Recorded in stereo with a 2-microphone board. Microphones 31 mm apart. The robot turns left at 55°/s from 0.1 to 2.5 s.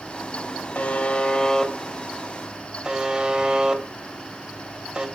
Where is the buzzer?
50° left (ahead or behind), 2 m; by 5.1 s 25° right (ahead or behind), 2 m.